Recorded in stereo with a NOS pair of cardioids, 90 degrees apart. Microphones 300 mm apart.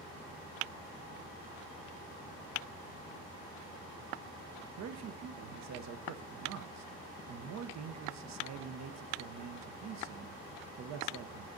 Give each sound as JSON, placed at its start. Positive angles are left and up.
{"t": 4.8, "sound": "a man speaking", "azimuth_deg": -65, "distance_m": 0.7}